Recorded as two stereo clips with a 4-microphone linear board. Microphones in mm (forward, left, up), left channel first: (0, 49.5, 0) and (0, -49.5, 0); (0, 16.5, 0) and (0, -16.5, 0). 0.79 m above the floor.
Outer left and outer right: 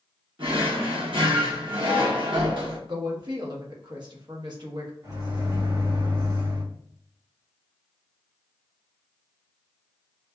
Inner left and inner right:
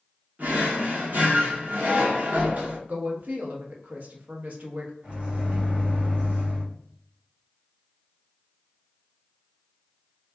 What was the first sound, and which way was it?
A drawer, 65° right (ahead or behind).